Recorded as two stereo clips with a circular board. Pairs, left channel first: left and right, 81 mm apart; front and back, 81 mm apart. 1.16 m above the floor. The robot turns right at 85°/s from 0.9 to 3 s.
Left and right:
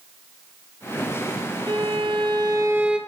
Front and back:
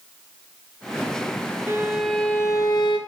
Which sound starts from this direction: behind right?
A violin, at 1.7 s.